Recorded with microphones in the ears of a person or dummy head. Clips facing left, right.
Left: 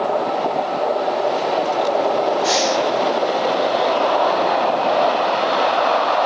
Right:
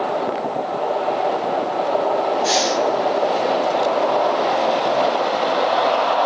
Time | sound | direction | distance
2.4 | breathing | 5° right (ahead or behind) | 0.7 m